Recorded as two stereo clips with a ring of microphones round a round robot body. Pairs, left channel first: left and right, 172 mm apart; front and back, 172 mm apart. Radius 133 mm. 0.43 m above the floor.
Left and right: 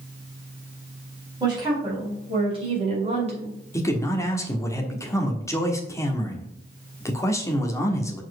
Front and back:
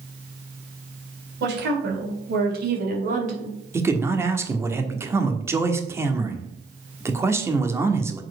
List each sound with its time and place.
1.4 s a woman speaking: 160° right, 3.5 m; by 3.6 s 135° right, 2 m
3.7 s a man speaking: 130° left, 1.4 m